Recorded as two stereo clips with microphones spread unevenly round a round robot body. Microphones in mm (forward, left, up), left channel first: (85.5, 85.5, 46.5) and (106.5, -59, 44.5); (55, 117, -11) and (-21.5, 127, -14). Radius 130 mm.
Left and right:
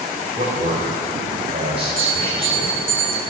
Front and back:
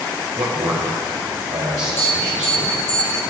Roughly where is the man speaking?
Behind right.